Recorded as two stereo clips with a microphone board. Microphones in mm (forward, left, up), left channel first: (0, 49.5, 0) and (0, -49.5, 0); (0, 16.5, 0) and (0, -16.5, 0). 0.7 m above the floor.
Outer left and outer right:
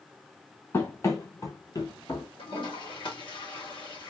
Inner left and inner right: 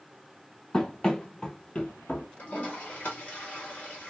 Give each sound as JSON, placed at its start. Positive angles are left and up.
{"t": 0.7, "sound": "running footsteps", "side_deg": 25, "distance_m": 1.1}
{"t": 2.4, "sound": "a toilet flushing", "side_deg": 55, "distance_m": 2.0}